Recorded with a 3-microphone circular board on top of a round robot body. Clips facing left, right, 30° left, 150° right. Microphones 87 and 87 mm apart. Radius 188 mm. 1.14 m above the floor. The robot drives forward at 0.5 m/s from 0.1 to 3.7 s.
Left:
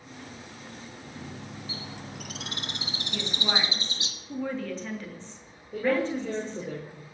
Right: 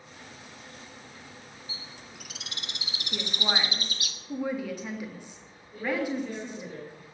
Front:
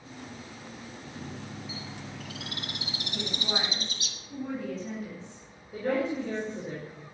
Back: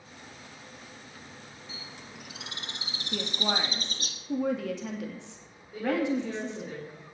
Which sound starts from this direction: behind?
A woman speaking, at 3.1 s.